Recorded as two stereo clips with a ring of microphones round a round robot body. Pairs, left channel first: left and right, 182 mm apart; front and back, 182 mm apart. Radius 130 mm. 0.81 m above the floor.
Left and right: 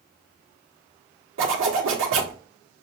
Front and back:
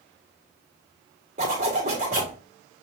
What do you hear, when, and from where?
1.4 s a zipper: 115° right, 1.3 m